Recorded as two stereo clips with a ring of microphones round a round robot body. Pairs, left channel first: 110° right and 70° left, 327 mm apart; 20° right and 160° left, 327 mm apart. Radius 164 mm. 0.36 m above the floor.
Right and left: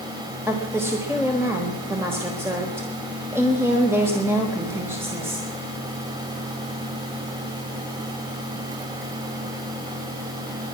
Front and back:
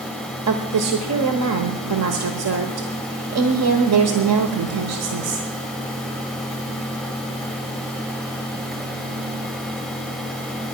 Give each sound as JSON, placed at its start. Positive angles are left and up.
{"t": 0.5, "sound": "a woman speaking", "azimuth_deg": 150, "distance_m": 1.2}